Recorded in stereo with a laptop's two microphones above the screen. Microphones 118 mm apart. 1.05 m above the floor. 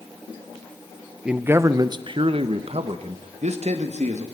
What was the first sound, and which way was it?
A man speaking, 5° right (ahead or behind).